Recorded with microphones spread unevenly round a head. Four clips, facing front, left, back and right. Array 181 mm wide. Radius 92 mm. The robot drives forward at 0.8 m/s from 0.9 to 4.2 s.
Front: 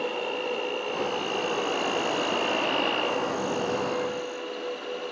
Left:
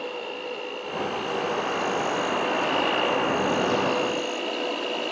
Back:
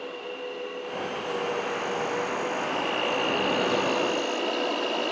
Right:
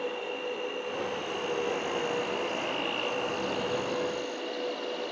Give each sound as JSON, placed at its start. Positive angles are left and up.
{"t": 0.0, "sound": "an insect", "azimuth_deg": 15, "distance_m": 2.0}